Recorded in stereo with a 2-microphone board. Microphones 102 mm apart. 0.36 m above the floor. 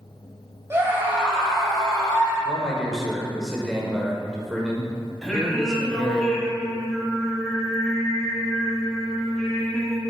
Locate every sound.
0.7 s a scream: 25° right (ahead or behind), 1.8 m; by 2.4 s 15° left (ahead or behind), 2 m
2.5 s a man speaking: centre (ahead or behind), 1.1 m
5.2 s singing: 5° left (ahead or behind), 1.3 m